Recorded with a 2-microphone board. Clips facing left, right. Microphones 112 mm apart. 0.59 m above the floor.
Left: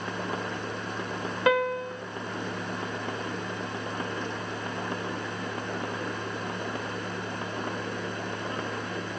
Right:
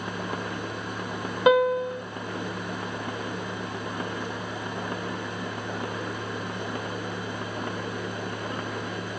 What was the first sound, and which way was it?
A piano, 20° right (ahead or behind).